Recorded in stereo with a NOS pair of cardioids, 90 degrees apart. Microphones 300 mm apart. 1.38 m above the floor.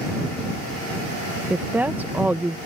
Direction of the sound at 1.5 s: 5° right.